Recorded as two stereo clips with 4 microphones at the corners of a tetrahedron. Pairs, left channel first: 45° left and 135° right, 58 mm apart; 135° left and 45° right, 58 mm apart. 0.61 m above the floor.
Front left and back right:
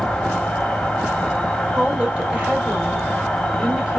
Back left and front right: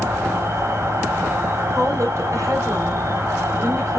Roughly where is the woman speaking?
Ahead right.